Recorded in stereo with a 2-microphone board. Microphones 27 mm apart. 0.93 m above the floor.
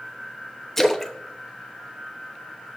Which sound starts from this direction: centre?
A splash, at 0.8 s.